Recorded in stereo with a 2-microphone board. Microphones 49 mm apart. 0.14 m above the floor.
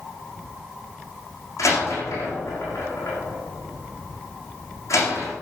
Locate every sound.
1.6 s a door slam: 80° left, 6 m